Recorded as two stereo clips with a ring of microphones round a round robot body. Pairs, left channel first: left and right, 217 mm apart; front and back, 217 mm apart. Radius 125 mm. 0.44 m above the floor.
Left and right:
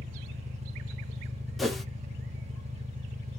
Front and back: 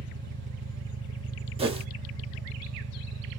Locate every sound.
0.0 s an engine running: 150° right, 0.7 m
1.6 s a whoosh: straight behind, 1.1 m